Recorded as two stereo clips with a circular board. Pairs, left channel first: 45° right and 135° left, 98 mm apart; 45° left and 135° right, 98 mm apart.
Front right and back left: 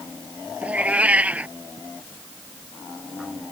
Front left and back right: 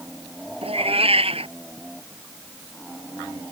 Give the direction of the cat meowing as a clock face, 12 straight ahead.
5 o'clock.